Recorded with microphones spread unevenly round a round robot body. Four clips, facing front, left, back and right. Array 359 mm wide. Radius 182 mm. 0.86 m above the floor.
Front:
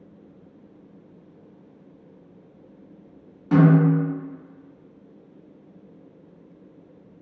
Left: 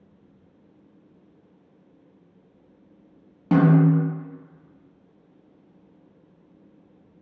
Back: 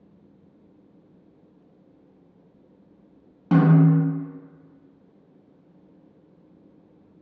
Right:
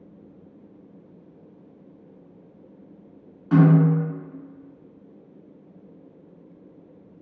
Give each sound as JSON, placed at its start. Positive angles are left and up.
{"t": 3.5, "sound": "a snare drum", "azimuth_deg": 120, "distance_m": 0.7}